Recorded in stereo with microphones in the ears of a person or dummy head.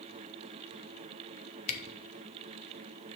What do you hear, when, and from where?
1.7 s a camera shutter: 45° left (ahead or behind), 1.0 m